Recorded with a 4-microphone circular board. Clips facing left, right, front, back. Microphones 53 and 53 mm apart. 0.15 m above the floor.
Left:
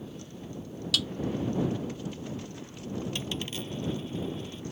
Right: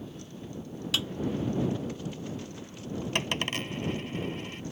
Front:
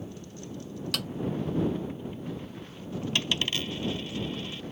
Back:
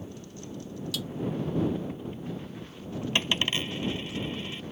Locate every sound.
0.9 s a snare drum: 25° right
3.1 s a dropped coin: 115° right